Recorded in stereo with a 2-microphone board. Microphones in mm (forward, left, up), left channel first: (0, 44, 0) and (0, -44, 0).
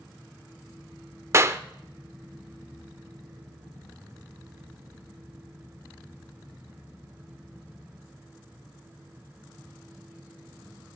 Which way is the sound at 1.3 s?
35° right (ahead or behind).